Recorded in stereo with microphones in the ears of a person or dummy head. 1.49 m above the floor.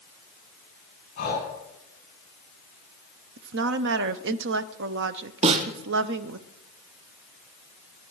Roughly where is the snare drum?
Right.